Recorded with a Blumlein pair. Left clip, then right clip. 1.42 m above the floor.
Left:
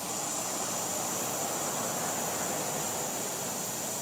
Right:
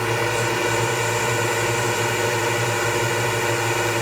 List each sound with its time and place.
0.0 s a drone: 45° right